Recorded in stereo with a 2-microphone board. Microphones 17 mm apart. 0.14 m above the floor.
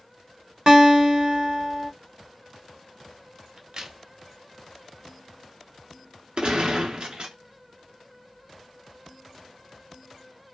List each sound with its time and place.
0.7 s a guitar: 45° right (ahead or behind), 1.0 m
3.6 s a crack: 45° right (ahead or behind), 0.6 m
6.4 s a gunshot: 50° right (ahead or behind), 0.7 m